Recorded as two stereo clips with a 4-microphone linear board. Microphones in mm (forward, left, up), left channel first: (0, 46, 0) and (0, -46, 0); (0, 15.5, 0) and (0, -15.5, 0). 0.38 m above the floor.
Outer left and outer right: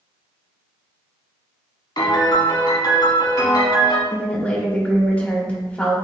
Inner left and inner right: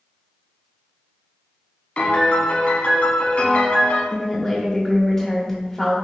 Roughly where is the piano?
Left.